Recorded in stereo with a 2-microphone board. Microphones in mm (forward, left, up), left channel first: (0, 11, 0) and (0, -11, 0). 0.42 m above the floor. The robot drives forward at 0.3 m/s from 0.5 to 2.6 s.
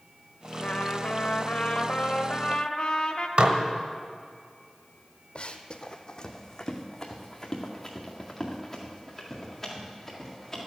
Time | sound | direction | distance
0.6 | a trumpet | 65° left (ahead or behind) | 0.7 m
3.4 | dishes clattering | 65° right (ahead or behind) | 1.1 m
5.3 | running footsteps | 55° left (ahead or behind) | 0.7 m